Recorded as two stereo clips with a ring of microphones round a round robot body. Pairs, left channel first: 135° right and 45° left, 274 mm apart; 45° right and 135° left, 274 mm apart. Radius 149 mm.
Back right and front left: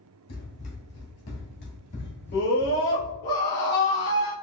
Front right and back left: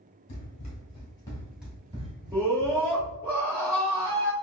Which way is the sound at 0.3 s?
105° right.